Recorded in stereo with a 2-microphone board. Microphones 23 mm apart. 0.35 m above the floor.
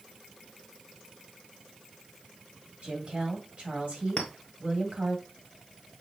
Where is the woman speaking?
60° right (ahead or behind), 1.9 m.